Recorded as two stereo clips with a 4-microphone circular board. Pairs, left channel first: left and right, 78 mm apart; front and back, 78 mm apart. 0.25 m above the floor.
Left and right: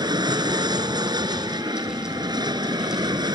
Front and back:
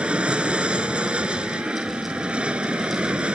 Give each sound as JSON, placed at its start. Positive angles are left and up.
{"t": 0.0, "sound": "an aircraft", "azimuth_deg": -105}